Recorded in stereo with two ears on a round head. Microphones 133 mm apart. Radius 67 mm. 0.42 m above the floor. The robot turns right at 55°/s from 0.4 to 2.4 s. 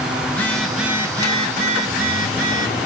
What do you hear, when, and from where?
0.3 s a phone buzzing: 165° left, 1.2 m; by 2.8 s 85° right, 1.2 m